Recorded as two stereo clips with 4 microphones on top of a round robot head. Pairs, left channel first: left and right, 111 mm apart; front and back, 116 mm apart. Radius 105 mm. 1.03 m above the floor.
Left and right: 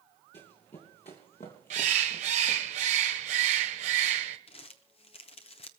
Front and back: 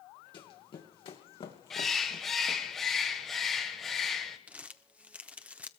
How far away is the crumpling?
About 0.8 m.